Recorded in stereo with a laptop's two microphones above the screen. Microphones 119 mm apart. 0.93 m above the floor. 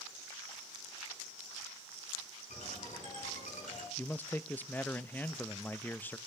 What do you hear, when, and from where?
2.5 s a ringtone: 80° left, 5.5 m
4.0 s a man speaking: 15° left (ahead or behind), 0.6 m